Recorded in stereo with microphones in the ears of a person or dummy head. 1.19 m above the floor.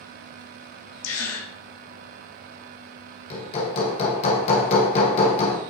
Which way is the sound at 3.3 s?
35° left (ahead or behind).